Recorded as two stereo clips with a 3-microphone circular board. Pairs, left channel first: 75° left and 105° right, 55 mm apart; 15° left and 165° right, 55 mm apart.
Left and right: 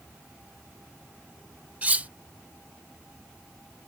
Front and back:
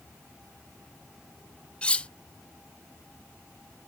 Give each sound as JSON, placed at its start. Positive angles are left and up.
{"t": 1.8, "sound": "cutlery clinking", "azimuth_deg": -50}